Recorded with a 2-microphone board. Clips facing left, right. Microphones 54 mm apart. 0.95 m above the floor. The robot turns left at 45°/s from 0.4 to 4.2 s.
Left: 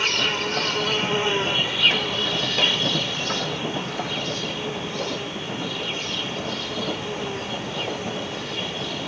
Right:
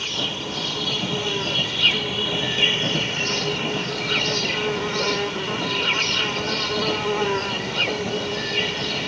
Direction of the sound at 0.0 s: 70° left.